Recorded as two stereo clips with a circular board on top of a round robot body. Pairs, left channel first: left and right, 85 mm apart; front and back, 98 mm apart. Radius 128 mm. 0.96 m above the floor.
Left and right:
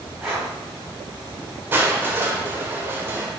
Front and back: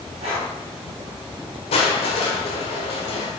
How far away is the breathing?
About 3 m.